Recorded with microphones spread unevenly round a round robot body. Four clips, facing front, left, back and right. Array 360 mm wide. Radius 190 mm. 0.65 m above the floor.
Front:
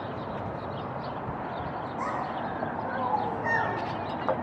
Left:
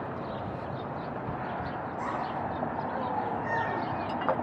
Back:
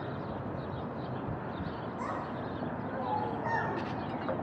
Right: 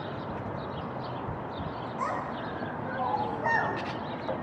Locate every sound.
2.0 s a child speaking: 50° right, 6 m; by 3.8 s 70° right, 5 m